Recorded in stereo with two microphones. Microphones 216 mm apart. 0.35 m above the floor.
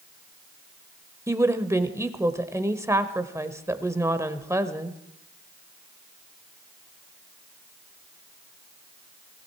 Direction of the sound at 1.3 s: 15° right (ahead or behind).